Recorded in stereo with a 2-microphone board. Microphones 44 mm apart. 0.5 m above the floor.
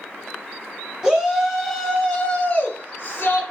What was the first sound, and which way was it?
A shout, 15° right (ahead or behind).